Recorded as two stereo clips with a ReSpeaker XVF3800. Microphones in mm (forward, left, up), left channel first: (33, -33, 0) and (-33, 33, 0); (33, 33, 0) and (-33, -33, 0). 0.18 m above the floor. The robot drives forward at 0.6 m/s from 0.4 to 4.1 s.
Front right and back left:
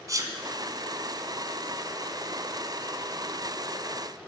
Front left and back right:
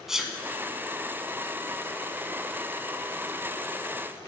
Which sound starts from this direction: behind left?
A sneeze, at 0.1 s.